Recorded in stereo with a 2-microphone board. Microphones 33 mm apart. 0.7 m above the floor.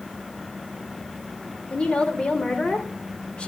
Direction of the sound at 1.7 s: 35° left (ahead or behind).